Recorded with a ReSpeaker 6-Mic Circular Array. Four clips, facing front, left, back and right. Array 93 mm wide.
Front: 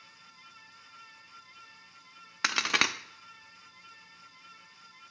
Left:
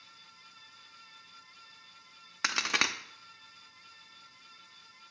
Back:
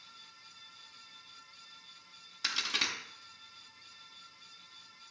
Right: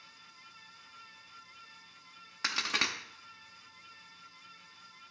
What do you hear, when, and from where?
2.4 s a crack: 20° left, 0.6 m